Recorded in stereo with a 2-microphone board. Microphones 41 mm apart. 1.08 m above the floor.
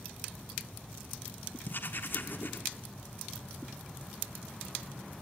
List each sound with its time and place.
1.6 s writing: 55° left (ahead or behind), 1.5 m